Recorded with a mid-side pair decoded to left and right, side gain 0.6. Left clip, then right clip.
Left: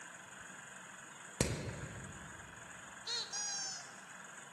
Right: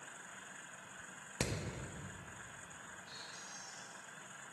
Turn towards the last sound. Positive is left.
turn(degrees=70)